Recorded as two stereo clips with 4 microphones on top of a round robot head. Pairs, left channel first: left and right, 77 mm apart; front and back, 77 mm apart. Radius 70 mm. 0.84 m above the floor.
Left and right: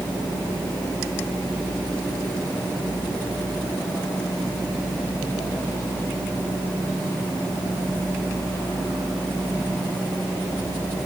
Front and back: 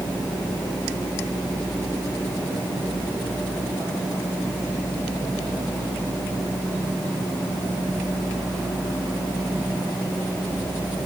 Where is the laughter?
No laughter in this recording.